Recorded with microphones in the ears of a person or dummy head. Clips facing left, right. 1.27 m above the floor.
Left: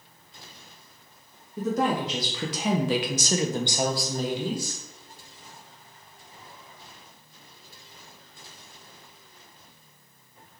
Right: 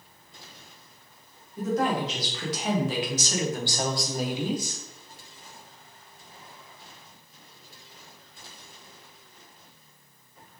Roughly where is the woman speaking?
Left.